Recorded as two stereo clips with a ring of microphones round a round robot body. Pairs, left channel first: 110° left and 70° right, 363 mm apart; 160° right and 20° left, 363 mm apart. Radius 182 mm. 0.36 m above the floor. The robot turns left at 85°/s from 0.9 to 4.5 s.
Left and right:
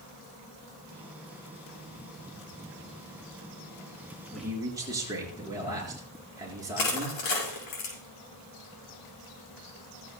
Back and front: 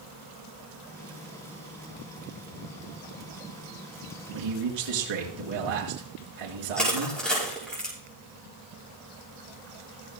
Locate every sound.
4.3 s a man speaking: 30° left, 4 m; by 7.2 s 15° left, 4 m
6.8 s crushing: 115° left, 5.5 m